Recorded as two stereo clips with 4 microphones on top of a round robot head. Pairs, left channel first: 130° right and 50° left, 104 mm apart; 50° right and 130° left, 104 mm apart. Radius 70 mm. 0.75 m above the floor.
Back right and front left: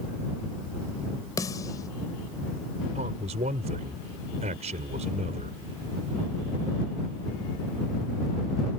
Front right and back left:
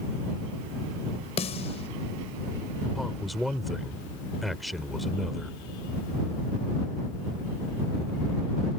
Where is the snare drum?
75° right.